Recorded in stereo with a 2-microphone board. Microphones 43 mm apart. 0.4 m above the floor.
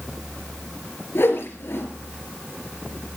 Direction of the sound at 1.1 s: 65° left (ahead or behind).